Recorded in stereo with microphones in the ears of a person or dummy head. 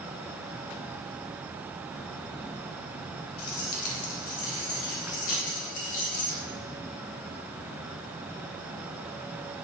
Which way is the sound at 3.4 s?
55° left (ahead or behind).